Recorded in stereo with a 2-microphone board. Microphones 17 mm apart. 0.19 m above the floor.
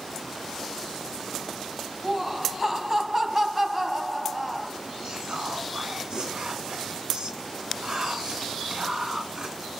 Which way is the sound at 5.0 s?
50° right (ahead or behind).